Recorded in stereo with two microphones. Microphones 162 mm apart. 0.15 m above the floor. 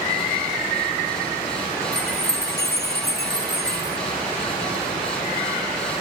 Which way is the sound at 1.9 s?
90° left.